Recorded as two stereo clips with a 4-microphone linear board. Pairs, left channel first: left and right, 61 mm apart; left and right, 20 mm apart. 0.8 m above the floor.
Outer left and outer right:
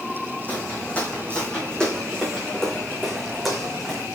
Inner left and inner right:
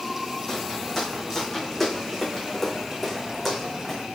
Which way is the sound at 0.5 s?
25° left (ahead or behind).